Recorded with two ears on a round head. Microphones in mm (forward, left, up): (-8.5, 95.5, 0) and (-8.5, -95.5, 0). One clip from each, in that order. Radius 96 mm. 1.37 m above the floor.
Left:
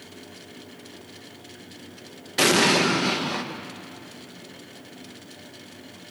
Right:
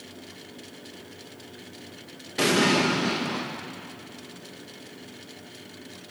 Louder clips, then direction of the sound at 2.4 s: Left 3 dB; 25° left (ahead or behind).